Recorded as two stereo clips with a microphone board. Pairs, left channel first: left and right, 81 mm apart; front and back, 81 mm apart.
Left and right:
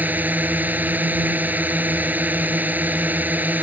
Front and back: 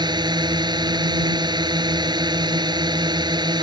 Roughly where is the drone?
Behind.